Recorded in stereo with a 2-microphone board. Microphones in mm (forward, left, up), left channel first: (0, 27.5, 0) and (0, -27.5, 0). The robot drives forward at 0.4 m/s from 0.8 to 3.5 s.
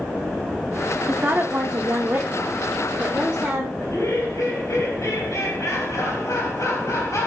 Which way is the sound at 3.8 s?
75° left (ahead or behind).